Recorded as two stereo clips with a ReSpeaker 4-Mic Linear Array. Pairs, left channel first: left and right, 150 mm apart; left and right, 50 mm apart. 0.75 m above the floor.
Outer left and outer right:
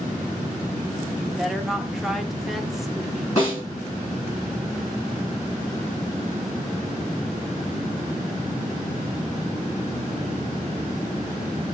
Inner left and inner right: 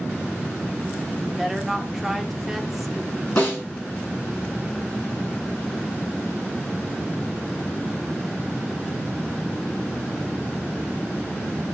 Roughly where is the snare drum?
Left.